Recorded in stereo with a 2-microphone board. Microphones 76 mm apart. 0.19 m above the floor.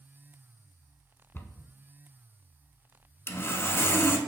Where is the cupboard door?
30° left (ahead or behind), 0.6 m.